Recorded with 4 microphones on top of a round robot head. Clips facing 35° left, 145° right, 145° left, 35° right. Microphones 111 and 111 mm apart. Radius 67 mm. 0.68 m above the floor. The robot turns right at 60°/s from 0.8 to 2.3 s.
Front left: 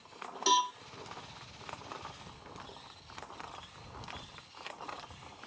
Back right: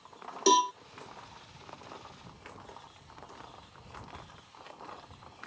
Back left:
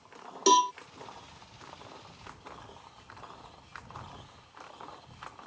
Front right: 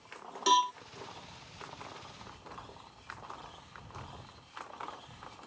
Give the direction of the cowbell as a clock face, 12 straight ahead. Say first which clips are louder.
Back right 5 dB, back left 4 dB; 6 o'clock.